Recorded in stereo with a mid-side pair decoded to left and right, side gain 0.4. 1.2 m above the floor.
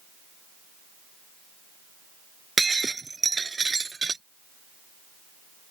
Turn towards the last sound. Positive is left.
turn(degrees=-30)